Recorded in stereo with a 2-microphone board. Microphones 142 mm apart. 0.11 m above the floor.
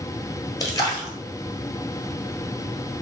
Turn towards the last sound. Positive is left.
turn(degrees=25)  # may be behind; listen again after turning